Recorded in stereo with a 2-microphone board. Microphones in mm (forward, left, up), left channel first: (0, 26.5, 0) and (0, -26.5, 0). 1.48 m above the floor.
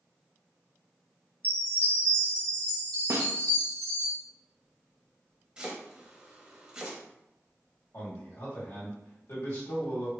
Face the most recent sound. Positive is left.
turn(degrees=65)  # may be behind; listen again after turning